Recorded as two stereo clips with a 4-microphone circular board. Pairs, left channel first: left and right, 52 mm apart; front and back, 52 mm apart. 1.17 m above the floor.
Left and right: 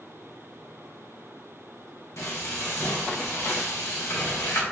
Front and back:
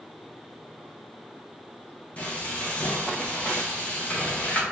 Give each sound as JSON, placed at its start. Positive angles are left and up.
{"t": 2.2, "sound": "frying", "azimuth_deg": 60, "distance_m": 0.8}